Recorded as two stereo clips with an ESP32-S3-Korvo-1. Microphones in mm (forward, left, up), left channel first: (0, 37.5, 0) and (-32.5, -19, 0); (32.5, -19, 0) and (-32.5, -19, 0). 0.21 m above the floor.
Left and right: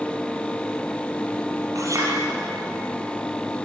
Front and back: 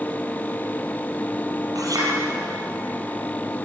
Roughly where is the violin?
I don't hear a violin.